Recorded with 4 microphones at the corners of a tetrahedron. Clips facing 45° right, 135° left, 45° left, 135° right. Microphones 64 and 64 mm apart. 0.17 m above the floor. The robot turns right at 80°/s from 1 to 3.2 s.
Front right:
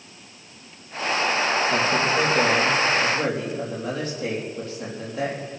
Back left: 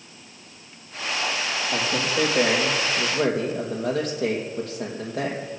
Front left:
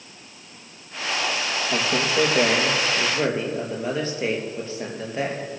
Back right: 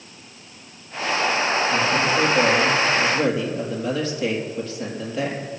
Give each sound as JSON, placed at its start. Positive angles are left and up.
{"t": 1.7, "sound": "a man speaking", "azimuth_deg": -15, "distance_m": 3.5}